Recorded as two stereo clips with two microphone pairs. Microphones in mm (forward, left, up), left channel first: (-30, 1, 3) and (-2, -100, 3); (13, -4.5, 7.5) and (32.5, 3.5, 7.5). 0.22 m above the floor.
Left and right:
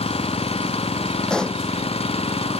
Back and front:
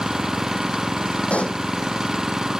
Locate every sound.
0.0 s an engine running: 85° left
1.3 s a pop: 170° right